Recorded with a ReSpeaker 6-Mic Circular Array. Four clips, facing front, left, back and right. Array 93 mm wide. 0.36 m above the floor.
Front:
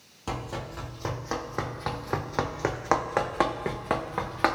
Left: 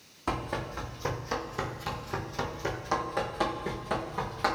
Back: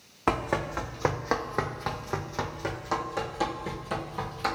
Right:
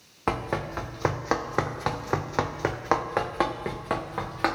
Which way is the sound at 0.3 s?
145° right.